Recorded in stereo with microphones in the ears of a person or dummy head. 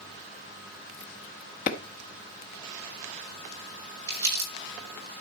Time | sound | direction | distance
1.7 | a clap | 45° left (ahead or behind) | 1.4 m
4.1 | crumpling | 20° right (ahead or behind) | 5.5 m